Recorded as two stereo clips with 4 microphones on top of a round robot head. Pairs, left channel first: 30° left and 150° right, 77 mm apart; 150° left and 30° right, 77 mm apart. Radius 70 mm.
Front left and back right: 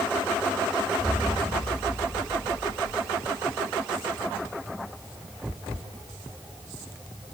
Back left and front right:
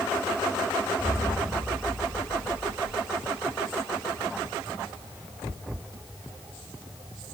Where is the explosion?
105° left, 3.5 m.